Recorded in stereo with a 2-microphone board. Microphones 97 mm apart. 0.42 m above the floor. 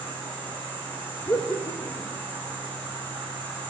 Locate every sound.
0.0 s an insect: 55° right (ahead or behind), 4 m
1.2 s laughter: 35° left (ahead or behind), 0.9 m